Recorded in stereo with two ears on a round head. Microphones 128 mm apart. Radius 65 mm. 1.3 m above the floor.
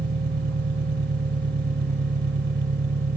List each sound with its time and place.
0.0 s an engine running: 85° right